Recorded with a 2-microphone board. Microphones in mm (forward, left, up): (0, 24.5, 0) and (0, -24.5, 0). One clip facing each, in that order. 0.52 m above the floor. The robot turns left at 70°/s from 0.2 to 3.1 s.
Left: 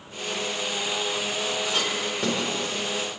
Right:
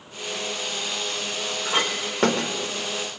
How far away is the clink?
About 1.0 m.